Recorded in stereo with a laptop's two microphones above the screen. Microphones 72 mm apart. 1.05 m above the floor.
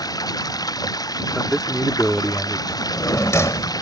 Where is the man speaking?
5° left (ahead or behind).